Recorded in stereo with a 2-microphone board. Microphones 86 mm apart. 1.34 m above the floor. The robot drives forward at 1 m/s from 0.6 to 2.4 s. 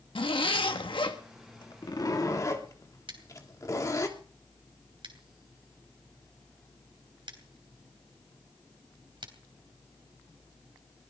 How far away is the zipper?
About 1.5 m.